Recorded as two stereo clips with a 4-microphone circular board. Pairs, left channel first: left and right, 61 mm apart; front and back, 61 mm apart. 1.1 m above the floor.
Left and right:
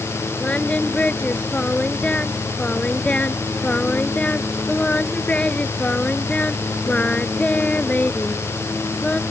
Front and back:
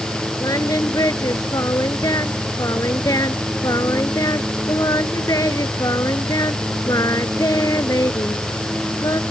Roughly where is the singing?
Ahead.